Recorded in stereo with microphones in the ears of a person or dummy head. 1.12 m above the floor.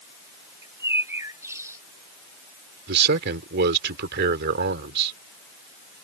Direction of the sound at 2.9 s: 65° right (ahead or behind).